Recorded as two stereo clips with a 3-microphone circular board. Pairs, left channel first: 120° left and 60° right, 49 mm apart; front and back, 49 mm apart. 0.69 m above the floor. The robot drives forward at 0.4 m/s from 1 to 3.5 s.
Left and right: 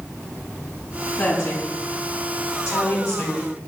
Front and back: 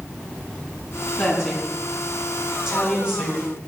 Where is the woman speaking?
90° left, 5.5 m; by 3.4 s 100° left, 5.5 m.